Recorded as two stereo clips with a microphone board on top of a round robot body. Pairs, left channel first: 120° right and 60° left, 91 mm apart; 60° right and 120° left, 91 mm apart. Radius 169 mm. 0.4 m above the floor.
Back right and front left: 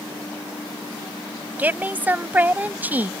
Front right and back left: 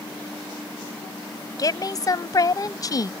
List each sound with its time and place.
1.6 s a woman speaking: 10° right